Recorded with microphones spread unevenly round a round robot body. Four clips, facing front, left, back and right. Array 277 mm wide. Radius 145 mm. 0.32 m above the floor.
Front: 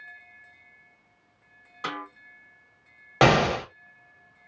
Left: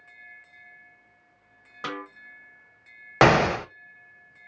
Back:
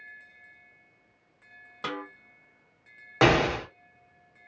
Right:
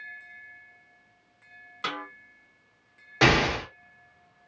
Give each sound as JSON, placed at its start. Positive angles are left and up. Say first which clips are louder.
{"t": 1.8, "sound": "a snare drum", "louder": "even, front 1 dB", "azimuth_deg": 135, "distance_m": 1.6}
{"t": 3.2, "sound": "an explosion", "louder": "left 4 dB, front 2 dB", "azimuth_deg": 45, "distance_m": 0.6}